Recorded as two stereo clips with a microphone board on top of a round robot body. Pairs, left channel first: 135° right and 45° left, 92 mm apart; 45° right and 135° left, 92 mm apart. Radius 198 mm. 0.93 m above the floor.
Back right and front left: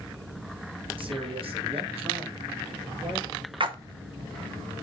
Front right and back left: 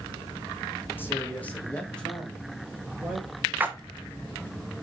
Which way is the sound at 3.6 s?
65° left.